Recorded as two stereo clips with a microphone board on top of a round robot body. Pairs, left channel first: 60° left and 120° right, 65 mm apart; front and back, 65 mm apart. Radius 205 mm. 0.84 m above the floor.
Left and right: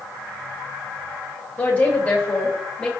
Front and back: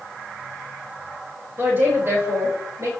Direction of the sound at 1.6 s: 125° left.